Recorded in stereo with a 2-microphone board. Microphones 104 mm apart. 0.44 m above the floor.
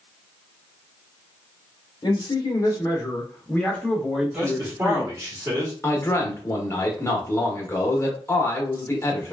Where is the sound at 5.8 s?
25° left (ahead or behind), 0.9 m.